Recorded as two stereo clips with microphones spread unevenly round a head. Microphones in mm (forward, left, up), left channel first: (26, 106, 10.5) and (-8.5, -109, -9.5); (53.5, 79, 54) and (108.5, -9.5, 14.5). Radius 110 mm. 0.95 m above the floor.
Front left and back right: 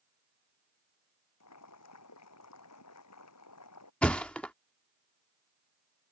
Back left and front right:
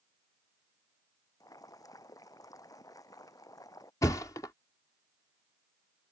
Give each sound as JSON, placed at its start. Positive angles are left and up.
{"t": 1.4, "sound": "boiling", "azimuth_deg": 70}
{"t": 4.0, "sound": "a thud", "azimuth_deg": 160}